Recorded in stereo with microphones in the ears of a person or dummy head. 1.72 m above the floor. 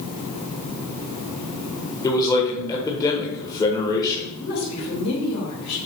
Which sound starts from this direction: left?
A woman speaking, at 4.4 s.